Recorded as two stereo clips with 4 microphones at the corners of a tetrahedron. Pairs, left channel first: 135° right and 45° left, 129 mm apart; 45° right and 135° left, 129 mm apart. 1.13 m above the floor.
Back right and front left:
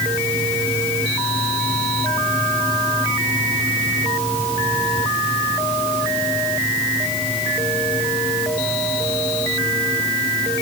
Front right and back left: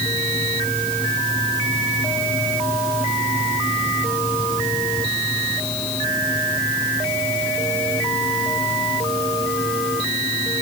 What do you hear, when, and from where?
Only background noise.